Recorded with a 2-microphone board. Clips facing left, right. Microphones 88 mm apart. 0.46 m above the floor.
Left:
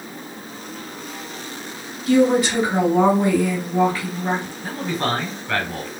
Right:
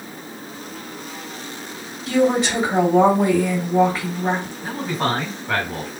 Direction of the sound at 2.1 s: 25° right (ahead or behind).